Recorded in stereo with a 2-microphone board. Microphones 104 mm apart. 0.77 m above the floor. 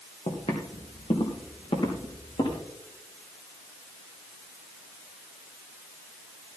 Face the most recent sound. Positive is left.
turn(degrees=60)  # may be behind; listen again after turning